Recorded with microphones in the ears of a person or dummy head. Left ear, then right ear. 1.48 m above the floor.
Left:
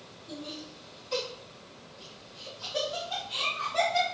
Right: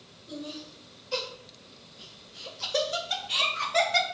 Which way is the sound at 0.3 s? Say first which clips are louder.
Right 1 dB; 20° left (ahead or behind).